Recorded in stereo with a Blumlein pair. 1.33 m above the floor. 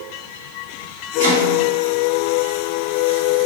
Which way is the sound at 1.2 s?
55° right.